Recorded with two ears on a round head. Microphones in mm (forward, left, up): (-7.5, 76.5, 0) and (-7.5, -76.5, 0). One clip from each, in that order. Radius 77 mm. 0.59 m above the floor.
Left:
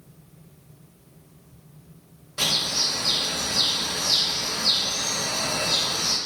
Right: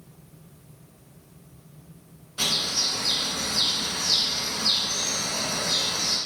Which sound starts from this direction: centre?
A bird, at 2.4 s.